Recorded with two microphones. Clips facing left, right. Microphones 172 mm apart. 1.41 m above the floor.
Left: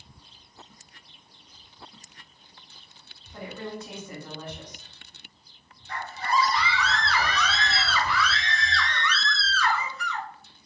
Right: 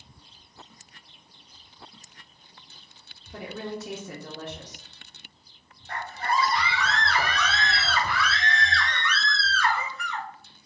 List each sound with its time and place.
3.3 s a woman speaking: 75° right (ahead or behind), 1.3 m
5.9 s a scream: 55° right (ahead or behind), 1.4 m